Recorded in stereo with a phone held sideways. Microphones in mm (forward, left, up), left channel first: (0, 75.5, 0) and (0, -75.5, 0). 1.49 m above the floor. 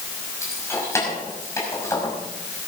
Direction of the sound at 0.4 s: 20° left (ahead or behind).